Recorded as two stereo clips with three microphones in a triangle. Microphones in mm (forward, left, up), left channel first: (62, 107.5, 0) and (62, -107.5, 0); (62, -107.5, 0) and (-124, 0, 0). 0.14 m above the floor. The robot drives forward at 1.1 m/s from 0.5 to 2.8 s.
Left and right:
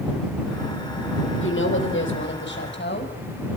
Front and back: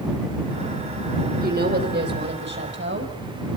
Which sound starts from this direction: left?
A woman speaking, at 1.4 s.